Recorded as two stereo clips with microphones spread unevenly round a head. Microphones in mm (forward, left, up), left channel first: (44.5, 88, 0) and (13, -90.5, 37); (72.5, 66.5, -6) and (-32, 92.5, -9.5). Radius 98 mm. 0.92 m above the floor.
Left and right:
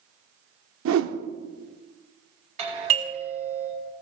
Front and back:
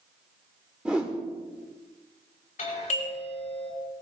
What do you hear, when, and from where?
0.8 s a whoosh: 110° right, 1.0 m
2.6 s a doorbell: 40° right, 5 m